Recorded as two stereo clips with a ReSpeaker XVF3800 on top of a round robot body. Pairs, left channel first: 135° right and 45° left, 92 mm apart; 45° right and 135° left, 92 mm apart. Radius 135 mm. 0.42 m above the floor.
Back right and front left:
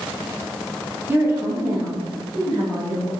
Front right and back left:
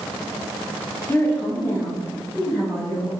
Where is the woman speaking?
Straight ahead, 0.9 m; by 3.1 s 10° left, 1.6 m.